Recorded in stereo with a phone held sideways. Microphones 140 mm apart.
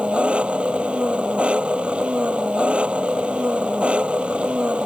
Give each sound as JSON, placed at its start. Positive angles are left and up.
{"t": 0.0, "sound": "an engine running", "side_deg": -10}